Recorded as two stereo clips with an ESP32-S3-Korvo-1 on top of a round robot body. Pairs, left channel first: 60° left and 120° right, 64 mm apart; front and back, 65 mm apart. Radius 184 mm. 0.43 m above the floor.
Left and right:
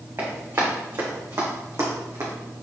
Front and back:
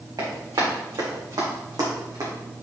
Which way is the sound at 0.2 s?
170° right.